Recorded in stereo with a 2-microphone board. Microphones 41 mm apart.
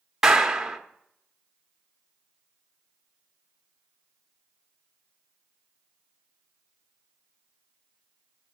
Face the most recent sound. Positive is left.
turn(degrees=-15)  # may be behind; listen again after turning